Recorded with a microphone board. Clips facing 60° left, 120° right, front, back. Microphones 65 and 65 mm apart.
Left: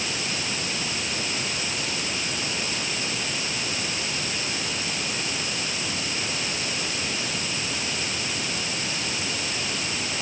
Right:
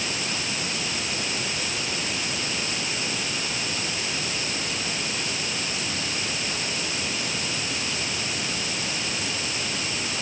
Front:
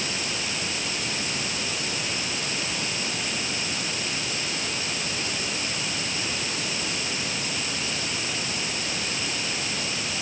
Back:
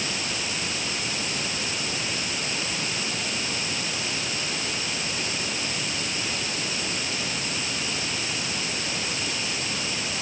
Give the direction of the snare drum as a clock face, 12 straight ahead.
I don't hear a snare drum.